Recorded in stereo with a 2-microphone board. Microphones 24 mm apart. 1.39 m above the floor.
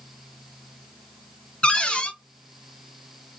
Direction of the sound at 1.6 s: 50° left (ahead or behind).